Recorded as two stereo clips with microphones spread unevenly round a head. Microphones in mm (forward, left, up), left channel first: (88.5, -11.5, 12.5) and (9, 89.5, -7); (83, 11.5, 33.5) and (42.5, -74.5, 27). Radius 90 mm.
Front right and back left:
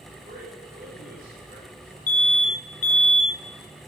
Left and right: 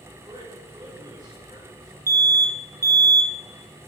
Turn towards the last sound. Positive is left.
turn(degrees=-60)